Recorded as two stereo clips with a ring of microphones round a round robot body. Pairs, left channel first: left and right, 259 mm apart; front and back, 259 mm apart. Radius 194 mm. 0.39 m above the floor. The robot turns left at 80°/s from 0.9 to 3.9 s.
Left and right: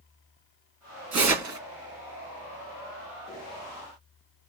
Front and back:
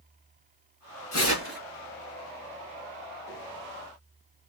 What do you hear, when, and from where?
1.1 s tearing paper: 55° right, 2.5 m; by 1.6 s 95° right, 2.5 m